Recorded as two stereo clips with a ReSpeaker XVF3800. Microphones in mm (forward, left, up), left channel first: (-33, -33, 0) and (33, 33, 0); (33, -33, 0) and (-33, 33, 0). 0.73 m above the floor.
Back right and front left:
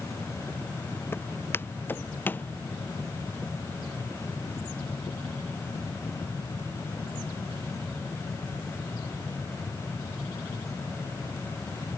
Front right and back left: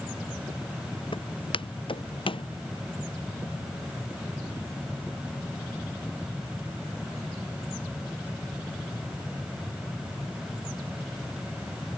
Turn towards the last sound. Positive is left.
turn(degrees=-65)